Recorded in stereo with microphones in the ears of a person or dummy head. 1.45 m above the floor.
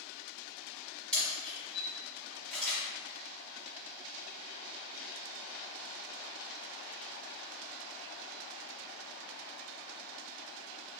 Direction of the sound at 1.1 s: 5° left (ahead or behind).